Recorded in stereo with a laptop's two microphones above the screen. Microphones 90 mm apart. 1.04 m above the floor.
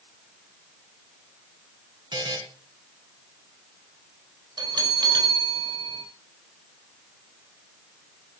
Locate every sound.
2.1 s a buzzer: 60° right (ahead or behind), 2 m
4.6 s a bell: 65° right (ahead or behind), 3 m